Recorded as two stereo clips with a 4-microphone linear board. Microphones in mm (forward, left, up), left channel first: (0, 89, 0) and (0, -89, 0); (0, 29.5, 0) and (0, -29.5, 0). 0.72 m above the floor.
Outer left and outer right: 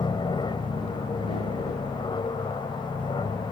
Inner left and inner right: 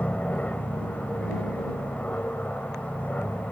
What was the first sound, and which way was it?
An aircraft, 25° left (ahead or behind).